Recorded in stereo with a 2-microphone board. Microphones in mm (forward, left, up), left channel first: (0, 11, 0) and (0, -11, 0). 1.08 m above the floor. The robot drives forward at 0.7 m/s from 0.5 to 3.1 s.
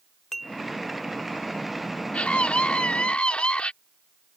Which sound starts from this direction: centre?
Dishes clattering, at 0.3 s.